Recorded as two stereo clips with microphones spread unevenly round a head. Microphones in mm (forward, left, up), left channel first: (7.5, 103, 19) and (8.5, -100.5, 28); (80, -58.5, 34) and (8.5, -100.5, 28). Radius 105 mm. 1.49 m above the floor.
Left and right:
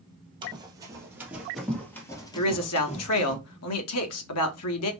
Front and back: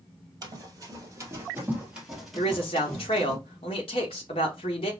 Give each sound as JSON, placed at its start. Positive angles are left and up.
{"t": 0.4, "sound": "running footsteps", "azimuth_deg": -145, "distance_m": 1.9}
{"t": 2.4, "sound": "a man speaking", "azimuth_deg": 80, "distance_m": 1.5}